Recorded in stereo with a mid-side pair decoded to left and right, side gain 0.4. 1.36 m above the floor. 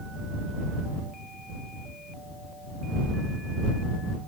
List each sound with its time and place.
Only background noise.